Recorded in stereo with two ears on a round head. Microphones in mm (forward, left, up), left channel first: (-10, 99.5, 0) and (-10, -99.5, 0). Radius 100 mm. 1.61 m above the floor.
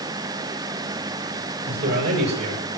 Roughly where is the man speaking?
Right.